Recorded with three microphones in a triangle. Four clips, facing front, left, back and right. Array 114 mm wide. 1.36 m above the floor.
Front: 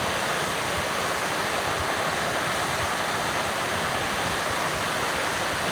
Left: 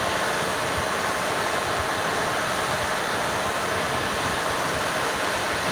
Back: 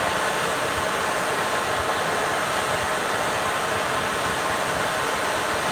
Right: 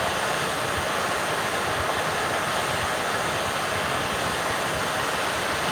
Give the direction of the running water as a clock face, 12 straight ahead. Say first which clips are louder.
Left 1 dB, back 3 dB; 7 o'clock.